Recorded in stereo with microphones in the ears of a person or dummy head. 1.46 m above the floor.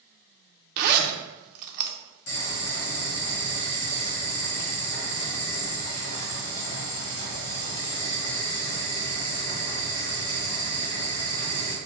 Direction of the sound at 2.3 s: 55° left (ahead or behind).